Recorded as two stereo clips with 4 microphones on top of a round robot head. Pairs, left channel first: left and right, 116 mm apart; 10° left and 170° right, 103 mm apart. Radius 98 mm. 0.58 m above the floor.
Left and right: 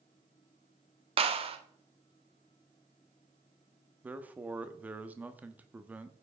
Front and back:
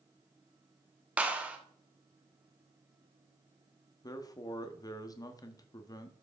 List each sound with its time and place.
1.2 s a clap: 95° right, 1.1 m
4.0 s a man speaking: 20° right, 0.9 m